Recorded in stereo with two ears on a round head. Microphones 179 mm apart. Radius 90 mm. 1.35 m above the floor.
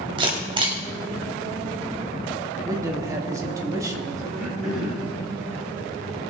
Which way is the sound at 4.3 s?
Centre (ahead or behind).